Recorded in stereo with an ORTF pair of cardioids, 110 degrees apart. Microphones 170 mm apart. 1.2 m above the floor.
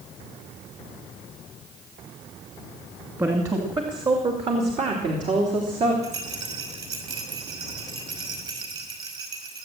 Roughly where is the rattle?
Ahead right.